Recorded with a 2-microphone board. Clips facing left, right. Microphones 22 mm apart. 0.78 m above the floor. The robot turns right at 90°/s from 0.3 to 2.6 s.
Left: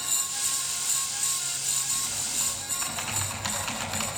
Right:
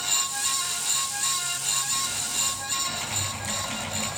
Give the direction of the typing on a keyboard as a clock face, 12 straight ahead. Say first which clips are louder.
Right 3 dB; 1 o'clock.